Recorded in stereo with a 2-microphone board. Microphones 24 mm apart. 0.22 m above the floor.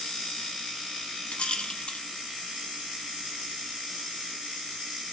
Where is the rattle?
55° left (ahead or behind), 0.7 m.